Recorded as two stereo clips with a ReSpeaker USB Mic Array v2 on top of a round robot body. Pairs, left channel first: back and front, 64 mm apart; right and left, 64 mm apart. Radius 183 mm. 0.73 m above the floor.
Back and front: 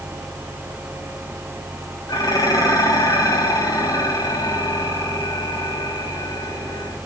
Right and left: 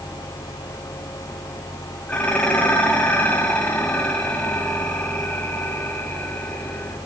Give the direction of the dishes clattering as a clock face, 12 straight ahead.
5 o'clock.